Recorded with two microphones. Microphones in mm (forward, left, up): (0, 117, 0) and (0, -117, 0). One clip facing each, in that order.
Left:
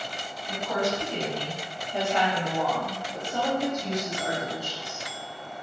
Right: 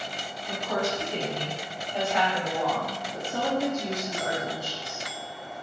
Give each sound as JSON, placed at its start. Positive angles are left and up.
{"t": 0.5, "sound": "a woman speaking", "side_deg": 5, "distance_m": 1.7}